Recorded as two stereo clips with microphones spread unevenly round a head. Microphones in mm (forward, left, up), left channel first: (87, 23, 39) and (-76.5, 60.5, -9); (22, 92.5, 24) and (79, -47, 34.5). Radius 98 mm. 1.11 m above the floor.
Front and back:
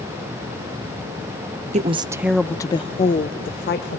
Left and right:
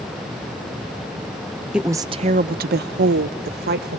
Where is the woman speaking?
155° right, 0.6 m; by 4.0 s 55° right, 1.3 m.